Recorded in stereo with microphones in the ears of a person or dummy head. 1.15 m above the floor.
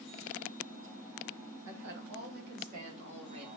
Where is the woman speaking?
65° right (ahead or behind), 1.4 m; by 3.5 s 25° right (ahead or behind), 1.6 m.